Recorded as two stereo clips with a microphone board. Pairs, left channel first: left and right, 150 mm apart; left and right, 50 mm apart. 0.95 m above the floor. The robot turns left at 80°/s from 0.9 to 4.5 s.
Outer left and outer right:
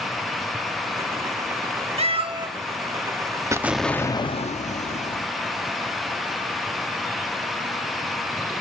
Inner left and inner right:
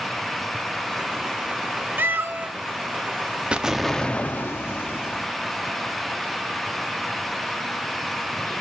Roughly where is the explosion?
Behind right.